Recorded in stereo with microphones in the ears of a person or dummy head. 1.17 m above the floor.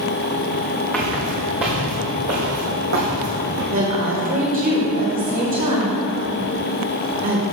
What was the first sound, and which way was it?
Footsteps, 5° left (ahead or behind).